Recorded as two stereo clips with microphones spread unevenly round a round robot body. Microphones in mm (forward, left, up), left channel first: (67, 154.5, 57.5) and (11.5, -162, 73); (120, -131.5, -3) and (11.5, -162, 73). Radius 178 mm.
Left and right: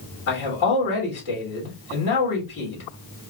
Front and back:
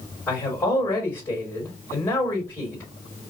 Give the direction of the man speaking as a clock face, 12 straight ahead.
10 o'clock.